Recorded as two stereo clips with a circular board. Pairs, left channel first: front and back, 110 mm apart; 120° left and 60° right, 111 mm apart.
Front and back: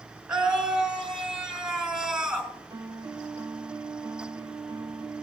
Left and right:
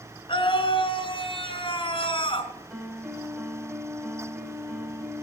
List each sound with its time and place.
0.3 s a scream: 100° left, 2 m
2.7 s a piano: 135° right, 0.8 m